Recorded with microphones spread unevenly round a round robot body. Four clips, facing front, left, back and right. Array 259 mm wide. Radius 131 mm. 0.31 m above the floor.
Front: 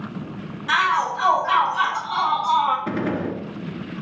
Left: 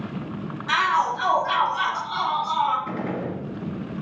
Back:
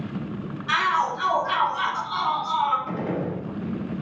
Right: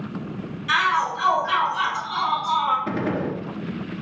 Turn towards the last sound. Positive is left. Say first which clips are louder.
# right 3 dB, front 3 dB
turn(degrees=-20)